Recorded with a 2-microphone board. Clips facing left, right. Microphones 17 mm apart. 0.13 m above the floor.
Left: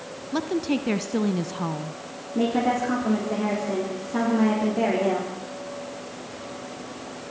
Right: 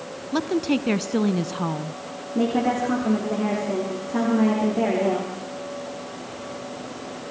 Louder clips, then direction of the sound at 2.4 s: Right 1 dB; centre (ahead or behind).